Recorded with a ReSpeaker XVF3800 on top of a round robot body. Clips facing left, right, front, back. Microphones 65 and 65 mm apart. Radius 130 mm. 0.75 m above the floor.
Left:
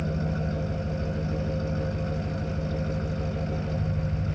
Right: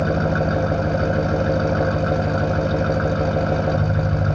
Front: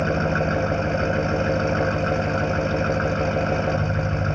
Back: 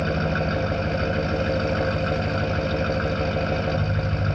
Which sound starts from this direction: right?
An engine running, at 0.0 s.